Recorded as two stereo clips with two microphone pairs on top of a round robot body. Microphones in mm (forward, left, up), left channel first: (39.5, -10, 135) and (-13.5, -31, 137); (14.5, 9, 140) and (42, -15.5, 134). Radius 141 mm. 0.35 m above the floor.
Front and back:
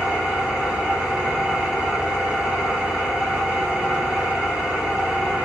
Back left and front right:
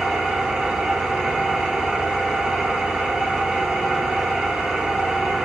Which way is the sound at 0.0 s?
90° right.